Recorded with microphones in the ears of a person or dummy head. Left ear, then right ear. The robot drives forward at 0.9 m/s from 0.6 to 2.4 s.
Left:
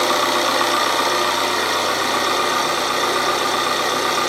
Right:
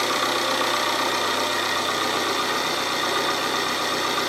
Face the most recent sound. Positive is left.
turn(degrees=0)  # may be behind; listen again after turning